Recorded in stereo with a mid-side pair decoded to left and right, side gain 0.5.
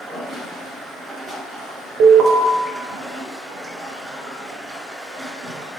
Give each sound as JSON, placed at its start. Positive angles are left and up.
{"t": 0.0, "sound": "running water", "azimuth_deg": -25, "distance_m": 1.9}
{"t": 2.0, "sound": "an alarm", "azimuth_deg": -65, "distance_m": 0.6}